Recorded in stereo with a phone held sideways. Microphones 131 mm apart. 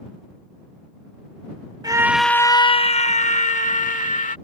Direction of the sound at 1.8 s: 30° right (ahead or behind).